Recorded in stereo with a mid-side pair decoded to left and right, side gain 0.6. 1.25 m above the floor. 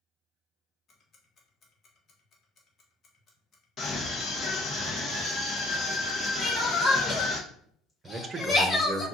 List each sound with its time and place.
0.9 s ticking: 40° left, 1.5 m
3.8 s a scream: 40° left, 1.2 m
6.4 s crying: 30° left, 2.5 m
8.0 s a man speaking: 30° right, 0.9 m